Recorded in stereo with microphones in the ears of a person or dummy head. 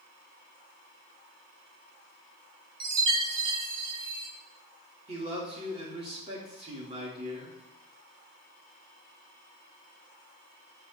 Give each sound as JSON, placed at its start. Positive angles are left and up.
{"t": 2.8, "sound": "a chime", "side_deg": -60, "distance_m": 1.9}
{"t": 5.1, "sound": "a man speaking", "side_deg": -35, "distance_m": 2.5}